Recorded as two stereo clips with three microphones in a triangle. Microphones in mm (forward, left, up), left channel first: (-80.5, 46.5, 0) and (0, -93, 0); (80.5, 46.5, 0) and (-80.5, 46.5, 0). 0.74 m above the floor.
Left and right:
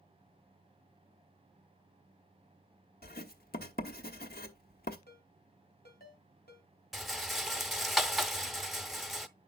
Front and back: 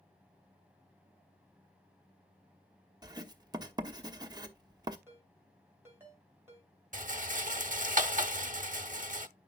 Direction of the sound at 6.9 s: 150° right.